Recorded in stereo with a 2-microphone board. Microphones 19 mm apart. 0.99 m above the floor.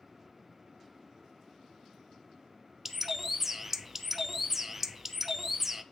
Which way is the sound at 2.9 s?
15° right (ahead or behind).